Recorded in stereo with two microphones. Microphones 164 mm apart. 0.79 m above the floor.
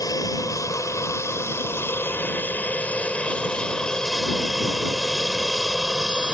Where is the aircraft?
20° left (ahead or behind); by 6.3 s 5° right (ahead or behind).